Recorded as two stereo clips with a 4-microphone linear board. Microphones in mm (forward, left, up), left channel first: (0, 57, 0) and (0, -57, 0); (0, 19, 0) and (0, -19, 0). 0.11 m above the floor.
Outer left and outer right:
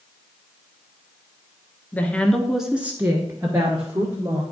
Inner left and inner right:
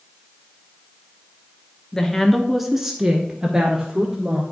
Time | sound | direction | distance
1.9 | a woman speaking | 15° left (ahead or behind) | 1.3 m